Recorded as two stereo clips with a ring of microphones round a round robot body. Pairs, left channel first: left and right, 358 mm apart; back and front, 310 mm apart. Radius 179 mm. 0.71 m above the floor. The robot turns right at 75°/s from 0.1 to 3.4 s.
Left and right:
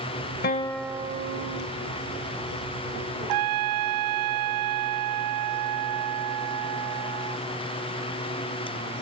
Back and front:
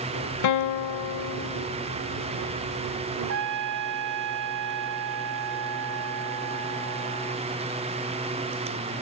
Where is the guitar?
150° left; by 1.7 s 115° right.